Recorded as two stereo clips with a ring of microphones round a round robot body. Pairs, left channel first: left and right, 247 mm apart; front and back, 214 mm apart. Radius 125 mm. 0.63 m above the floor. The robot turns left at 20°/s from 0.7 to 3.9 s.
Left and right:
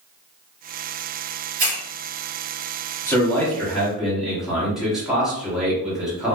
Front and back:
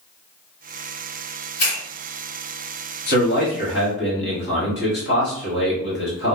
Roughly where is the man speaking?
Ahead.